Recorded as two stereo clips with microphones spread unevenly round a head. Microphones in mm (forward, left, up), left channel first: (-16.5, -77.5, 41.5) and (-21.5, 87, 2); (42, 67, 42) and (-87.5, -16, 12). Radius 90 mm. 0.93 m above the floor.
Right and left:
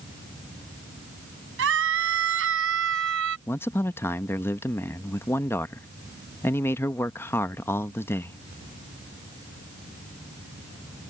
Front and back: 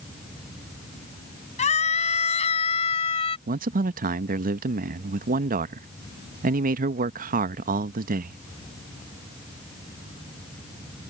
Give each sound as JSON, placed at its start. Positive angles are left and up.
{"t": 1.6, "sound": "a scream", "azimuth_deg": 75}
{"t": 3.5, "sound": "a man speaking", "azimuth_deg": -170}